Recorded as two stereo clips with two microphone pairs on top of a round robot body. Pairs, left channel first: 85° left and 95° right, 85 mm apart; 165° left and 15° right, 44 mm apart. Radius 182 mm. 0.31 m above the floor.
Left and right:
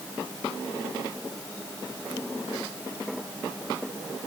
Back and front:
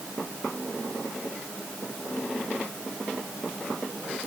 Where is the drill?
No drill in this recording.